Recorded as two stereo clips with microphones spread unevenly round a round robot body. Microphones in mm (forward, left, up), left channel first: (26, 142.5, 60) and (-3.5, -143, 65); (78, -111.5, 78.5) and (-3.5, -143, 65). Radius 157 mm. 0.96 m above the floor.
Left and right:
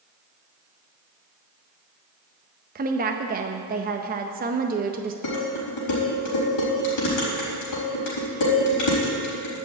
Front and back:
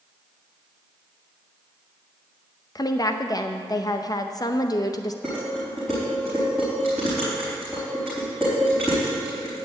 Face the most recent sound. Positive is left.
turn(degrees=115)